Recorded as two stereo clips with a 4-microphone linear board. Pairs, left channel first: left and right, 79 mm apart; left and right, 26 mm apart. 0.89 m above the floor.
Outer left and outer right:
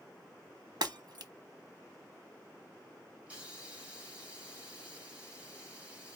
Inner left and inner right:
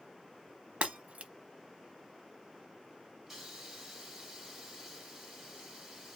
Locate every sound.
0.8 s breaking glass: 65° right (ahead or behind), 0.9 m
3.3 s a hiss: 20° right (ahead or behind), 3 m